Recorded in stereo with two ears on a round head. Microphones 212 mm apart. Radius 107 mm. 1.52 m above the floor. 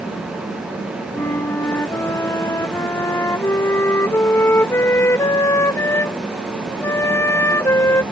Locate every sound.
1.1 s a flute: 10° left (ahead or behind)